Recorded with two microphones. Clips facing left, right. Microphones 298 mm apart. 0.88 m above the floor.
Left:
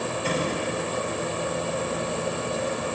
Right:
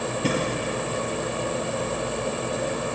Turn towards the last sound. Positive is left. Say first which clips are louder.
# right 4 dB
turn(degrees=-65)  # may be behind; listen again after turning